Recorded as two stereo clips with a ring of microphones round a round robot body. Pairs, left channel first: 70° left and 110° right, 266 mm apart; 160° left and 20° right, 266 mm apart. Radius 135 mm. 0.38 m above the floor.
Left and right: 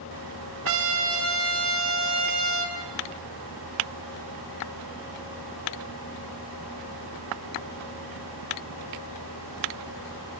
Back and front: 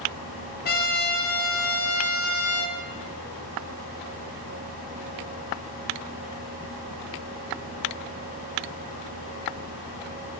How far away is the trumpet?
About 3.5 m.